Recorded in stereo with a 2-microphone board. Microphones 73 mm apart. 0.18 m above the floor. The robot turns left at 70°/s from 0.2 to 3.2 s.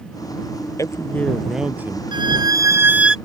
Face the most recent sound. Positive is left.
turn(degrees=-175)